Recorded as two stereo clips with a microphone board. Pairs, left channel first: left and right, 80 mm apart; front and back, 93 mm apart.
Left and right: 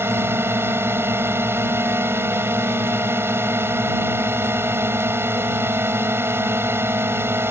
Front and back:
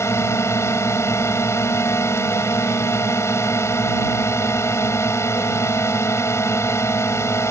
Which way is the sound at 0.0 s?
45° right.